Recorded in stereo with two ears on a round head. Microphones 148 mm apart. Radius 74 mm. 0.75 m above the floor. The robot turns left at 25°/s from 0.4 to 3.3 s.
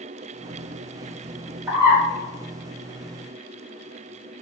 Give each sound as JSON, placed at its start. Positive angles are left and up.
{"t": 1.7, "sound": "a bird", "side_deg": -15, "distance_m": 1.0}